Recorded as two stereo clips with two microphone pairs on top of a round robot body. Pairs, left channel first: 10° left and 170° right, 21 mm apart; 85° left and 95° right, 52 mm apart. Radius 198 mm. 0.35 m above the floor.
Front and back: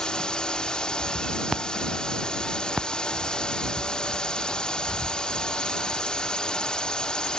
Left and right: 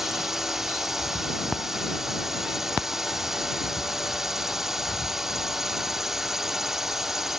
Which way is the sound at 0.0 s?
15° right.